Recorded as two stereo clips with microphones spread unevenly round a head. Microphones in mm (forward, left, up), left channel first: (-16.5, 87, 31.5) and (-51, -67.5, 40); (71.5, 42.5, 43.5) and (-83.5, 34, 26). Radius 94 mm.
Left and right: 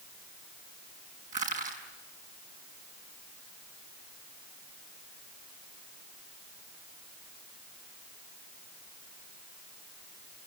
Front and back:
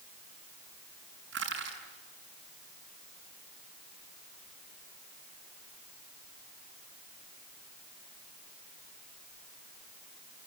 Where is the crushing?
145° right, 6.5 m.